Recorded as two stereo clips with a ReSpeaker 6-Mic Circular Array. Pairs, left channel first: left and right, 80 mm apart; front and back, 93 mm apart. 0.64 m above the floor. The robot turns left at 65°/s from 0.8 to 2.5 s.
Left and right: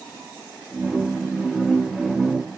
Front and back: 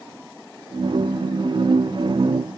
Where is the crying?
No crying in this recording.